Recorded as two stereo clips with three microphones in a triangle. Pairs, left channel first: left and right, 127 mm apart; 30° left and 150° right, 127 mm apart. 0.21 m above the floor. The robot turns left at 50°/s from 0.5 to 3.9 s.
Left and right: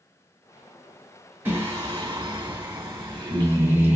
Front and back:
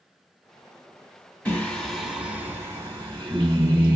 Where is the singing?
35° right, 1.7 m; by 4.0 s 160° right, 1.7 m.